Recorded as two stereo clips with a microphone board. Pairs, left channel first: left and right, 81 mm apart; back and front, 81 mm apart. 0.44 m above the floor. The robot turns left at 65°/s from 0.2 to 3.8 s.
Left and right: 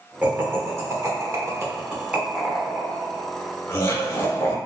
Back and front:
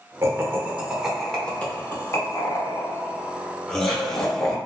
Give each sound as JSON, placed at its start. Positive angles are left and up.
{"t": 0.2, "sound": "laughter", "azimuth_deg": -25, "distance_m": 0.9}